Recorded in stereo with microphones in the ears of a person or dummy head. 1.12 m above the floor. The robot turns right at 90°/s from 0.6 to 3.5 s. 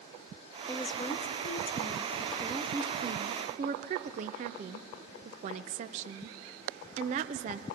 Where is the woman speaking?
20° left, 0.6 m; by 7.6 s 85° right, 0.6 m.